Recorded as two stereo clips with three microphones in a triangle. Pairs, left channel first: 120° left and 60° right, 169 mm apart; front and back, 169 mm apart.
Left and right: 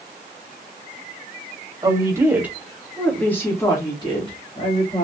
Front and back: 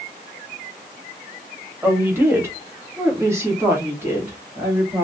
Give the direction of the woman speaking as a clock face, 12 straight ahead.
4 o'clock.